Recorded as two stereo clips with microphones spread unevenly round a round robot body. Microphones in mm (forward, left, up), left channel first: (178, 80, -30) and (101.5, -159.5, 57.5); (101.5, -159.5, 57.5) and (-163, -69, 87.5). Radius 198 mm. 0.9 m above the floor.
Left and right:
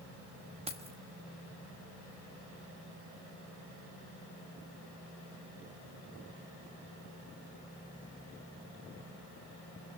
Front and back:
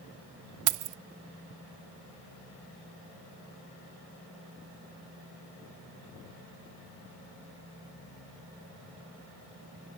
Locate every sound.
0.7 s keys jangling: 170° left, 0.8 m